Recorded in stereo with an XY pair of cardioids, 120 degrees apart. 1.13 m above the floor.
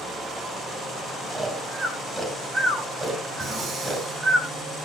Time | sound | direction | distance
1.3 | snoring | 20° right | 4.5 m
3.4 | breathing | 50° right | 4 m